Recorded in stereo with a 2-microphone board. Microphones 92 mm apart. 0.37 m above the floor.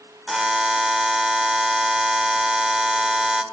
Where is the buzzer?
5° right (ahead or behind), 1.1 m.